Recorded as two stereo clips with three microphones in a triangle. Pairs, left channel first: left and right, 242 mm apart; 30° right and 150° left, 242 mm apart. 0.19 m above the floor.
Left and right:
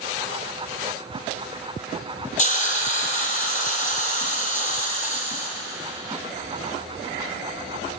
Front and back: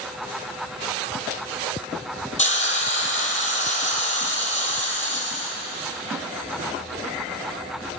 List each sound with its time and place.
2.4 s a hiss: 30° left, 2.0 m